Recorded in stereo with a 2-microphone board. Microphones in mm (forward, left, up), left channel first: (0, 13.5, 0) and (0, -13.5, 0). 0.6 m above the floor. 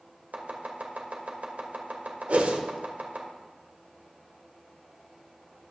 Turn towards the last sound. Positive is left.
turn(degrees=-65)  # may be behind; listen again after turning